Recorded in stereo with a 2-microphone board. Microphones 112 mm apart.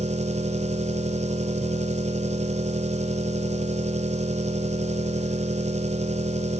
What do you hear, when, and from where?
0.0 s an engine running: 90° right, 1.3 m